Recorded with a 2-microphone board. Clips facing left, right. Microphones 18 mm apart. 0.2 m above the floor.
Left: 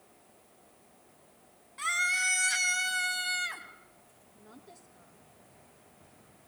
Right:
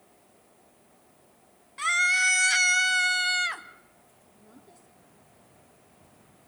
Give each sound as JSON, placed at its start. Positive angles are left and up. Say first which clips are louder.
{"t": 1.8, "sound": "a scream", "louder": "right 6 dB", "side_deg": -20, "distance_m": 1.5}
{"t": 4.3, "sound": "a woman speaking", "louder": "left 1 dB", "side_deg": 25, "distance_m": 3.0}